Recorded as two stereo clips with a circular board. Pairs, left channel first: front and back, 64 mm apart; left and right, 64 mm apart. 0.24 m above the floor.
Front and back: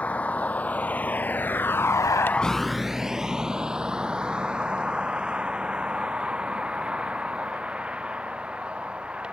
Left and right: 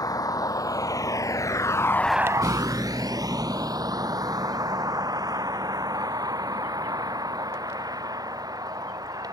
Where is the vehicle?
70° left; by 9.3 s 105° right.